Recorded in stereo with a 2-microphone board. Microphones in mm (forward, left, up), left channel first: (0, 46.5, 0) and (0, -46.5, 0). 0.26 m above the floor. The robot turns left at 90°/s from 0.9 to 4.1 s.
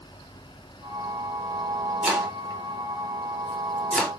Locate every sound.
2.0 s chopping: 10° right (ahead or behind), 0.9 m; by 4.1 s 15° left (ahead or behind), 0.9 m